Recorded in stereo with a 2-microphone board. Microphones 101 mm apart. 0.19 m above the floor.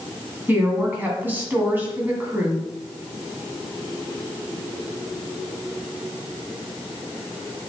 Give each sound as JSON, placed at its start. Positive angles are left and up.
{"t": 0.5, "sound": "a woman speaking", "side_deg": -20, "distance_m": 1.8}